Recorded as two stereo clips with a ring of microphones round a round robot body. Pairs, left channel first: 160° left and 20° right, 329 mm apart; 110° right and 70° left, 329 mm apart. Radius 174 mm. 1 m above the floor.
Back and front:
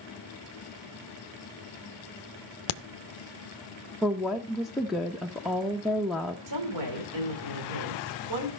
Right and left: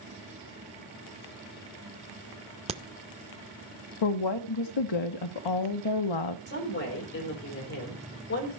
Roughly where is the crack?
Behind left.